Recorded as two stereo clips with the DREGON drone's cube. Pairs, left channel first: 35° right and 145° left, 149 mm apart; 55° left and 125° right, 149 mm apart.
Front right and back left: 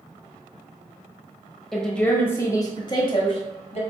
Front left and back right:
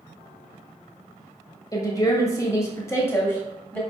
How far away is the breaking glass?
No breaking glass in this recording.